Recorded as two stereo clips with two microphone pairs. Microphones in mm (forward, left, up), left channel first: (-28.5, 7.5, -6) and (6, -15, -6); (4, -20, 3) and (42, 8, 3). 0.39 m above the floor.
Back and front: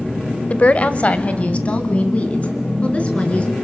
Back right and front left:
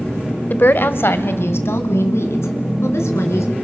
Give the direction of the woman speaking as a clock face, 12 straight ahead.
6 o'clock.